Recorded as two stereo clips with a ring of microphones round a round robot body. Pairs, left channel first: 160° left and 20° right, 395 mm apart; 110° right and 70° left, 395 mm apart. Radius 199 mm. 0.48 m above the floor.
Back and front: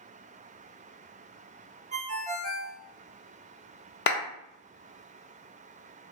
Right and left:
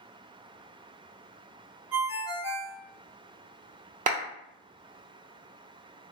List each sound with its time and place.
1.9 s a ringtone: 10° right, 0.7 m
4.1 s a clap: 120° left, 0.6 m